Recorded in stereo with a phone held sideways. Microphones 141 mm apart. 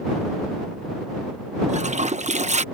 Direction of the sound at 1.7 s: 55° right (ahead or behind).